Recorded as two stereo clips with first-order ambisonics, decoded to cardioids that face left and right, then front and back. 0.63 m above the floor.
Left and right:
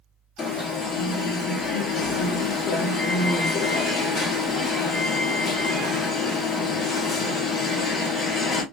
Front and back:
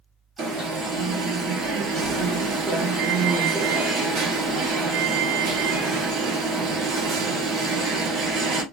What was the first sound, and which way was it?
An alarm, 150° left.